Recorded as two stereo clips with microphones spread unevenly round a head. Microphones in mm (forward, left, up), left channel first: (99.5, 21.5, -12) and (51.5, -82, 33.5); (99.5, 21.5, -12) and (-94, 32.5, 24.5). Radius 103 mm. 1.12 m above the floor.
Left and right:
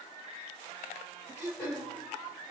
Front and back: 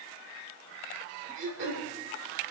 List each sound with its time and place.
1.4 s throat clearing: 150° left, 3 m